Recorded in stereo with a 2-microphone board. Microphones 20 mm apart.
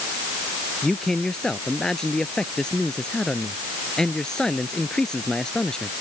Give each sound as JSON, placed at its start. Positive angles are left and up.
{"t": 0.8, "sound": "a man speaking", "side_deg": 35}